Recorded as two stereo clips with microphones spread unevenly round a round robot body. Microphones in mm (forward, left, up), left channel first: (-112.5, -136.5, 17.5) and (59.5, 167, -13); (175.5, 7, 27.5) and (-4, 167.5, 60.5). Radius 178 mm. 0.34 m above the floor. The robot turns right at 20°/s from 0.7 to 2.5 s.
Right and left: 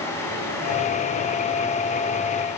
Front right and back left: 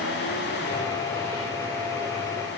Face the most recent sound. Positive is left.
No sound to turn to.